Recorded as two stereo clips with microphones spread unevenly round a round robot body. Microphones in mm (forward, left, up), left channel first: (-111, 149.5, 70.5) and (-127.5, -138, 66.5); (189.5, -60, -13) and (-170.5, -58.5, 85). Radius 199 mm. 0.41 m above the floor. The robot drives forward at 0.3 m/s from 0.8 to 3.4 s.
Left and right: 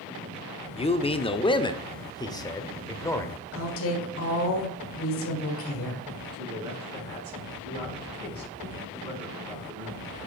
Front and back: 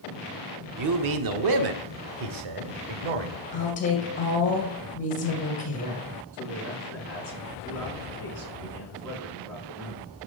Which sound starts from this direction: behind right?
A man speaking, at 6.3 s.